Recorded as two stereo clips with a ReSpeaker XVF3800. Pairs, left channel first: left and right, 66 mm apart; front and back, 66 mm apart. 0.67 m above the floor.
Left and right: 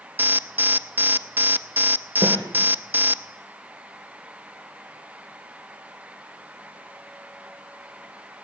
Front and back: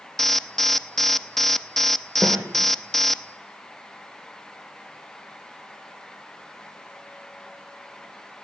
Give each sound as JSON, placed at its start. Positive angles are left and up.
{"t": 0.2, "sound": "an alarm", "azimuth_deg": -85, "distance_m": 0.8}
{"t": 2.2, "sound": "a snare drum", "azimuth_deg": -95, "distance_m": 9.0}